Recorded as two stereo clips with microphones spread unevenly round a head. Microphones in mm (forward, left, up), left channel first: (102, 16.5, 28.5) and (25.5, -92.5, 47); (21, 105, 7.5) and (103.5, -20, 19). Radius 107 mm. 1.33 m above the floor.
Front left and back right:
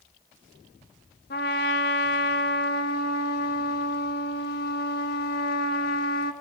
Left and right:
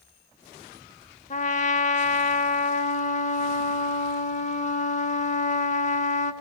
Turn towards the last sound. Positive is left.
turn(degrees=85)